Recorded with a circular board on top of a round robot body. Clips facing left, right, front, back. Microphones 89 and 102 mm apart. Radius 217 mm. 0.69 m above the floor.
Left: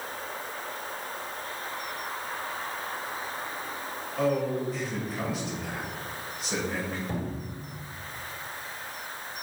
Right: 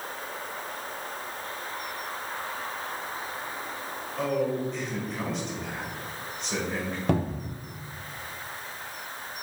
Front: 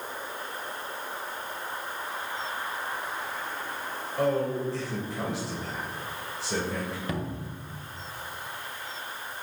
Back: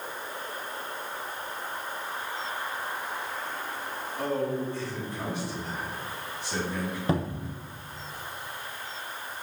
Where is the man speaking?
5° left, 4.5 m.